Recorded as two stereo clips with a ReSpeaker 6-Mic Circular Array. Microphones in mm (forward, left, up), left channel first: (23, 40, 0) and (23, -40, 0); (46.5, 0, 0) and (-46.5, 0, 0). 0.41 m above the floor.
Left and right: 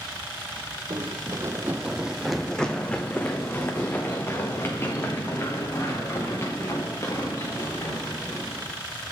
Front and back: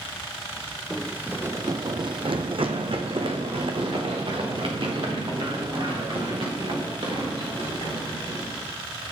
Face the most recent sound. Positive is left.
turn(degrees=145)